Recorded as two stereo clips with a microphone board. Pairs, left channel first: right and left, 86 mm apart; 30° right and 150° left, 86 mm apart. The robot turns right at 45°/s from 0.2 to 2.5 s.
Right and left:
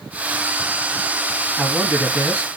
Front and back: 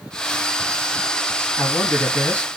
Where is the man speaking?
5° right, 1.0 m; by 2.6 s 35° left, 1.0 m.